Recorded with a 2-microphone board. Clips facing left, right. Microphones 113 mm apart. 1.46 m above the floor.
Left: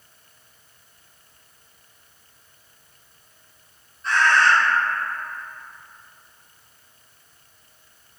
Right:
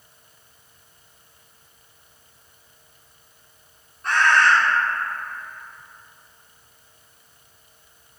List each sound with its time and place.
4.0 s a bird: 55° right (ahead or behind), 0.9 m